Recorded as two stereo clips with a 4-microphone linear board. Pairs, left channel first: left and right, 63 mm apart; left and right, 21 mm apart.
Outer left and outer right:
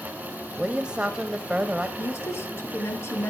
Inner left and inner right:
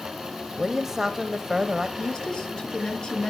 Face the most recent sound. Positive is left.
turn(degrees=45)  # may be behind; listen again after turning